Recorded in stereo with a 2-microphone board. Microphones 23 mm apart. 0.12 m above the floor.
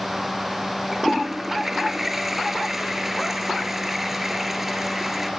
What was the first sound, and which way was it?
A toilet flushing, 15° right (ahead or behind).